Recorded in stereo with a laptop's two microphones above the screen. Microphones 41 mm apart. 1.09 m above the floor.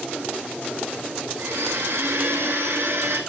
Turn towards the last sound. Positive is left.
turn(degrees=-85)